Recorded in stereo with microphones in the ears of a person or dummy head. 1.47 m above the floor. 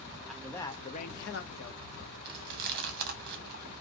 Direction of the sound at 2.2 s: 55° right (ahead or behind).